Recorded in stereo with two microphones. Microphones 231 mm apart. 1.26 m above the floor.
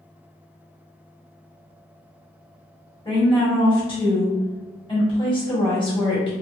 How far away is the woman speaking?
About 1.4 m.